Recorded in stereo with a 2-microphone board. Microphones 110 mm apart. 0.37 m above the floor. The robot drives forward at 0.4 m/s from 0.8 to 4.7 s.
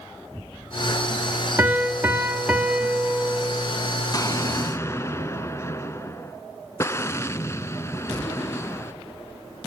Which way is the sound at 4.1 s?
35° left (ahead or behind).